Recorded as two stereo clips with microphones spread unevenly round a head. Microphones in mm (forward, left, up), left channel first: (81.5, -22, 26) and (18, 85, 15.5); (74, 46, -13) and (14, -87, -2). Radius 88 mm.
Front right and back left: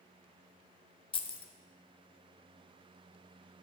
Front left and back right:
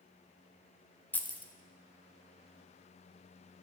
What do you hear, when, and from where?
1.1 s keys jangling: 10° right, 0.7 m